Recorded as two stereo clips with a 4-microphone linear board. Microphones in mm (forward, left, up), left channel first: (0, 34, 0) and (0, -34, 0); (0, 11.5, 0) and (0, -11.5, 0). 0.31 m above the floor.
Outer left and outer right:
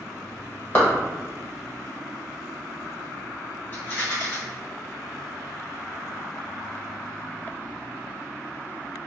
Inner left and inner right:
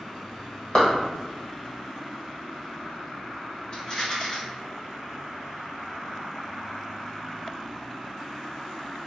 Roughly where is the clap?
Left.